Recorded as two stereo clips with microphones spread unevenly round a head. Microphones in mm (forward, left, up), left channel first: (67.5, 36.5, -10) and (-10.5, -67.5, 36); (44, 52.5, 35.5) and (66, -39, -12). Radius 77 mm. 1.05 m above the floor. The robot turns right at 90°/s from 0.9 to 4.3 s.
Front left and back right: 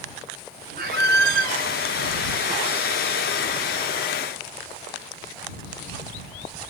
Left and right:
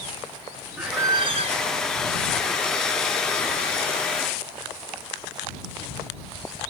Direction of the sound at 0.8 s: 160° right.